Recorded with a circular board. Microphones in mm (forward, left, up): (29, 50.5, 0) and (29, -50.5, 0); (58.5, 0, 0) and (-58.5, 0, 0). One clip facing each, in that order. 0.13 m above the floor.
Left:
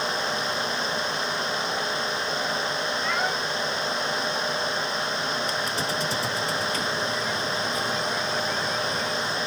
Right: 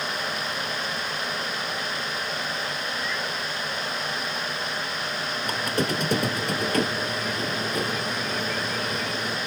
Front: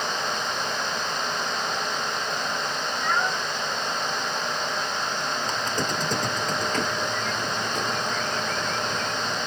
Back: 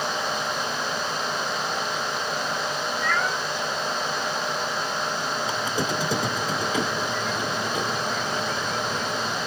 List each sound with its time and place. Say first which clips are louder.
3.0 s a cat meowing: left 4 dB, front 1 dB; 70° left
5.5 s a squeak: right 2 dB, back 2 dB; 100° right